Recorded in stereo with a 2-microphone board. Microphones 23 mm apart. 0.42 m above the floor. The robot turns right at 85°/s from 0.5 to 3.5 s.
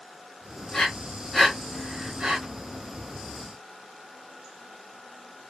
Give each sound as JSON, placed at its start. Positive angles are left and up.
{"t": 0.7, "sound": "breathing", "side_deg": 50, "distance_m": 1.5}